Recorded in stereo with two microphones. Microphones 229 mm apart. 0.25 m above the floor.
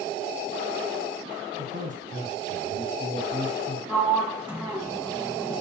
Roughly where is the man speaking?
Right.